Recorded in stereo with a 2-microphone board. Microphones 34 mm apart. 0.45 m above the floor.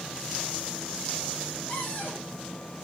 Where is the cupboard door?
70° left (ahead or behind), 7.5 m.